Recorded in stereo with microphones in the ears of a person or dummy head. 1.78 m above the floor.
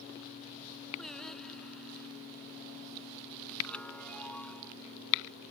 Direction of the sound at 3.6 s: 10° left (ahead or behind).